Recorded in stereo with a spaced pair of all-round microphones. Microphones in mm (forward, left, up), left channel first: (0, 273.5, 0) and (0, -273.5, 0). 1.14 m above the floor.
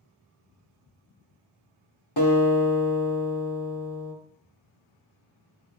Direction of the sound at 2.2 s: 45° left (ahead or behind).